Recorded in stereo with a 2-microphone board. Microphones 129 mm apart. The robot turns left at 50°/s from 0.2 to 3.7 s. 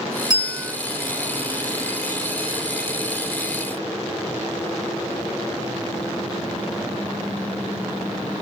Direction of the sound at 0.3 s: 30° right (ahead or behind).